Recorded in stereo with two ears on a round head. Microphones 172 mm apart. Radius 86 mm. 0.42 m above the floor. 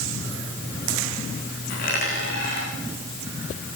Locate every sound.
1.7 s a dropped coin: 45° left (ahead or behind), 9 m